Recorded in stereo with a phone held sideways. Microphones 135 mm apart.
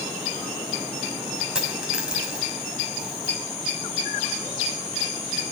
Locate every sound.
1.6 s a dropped coin: 5° right (ahead or behind), 5 m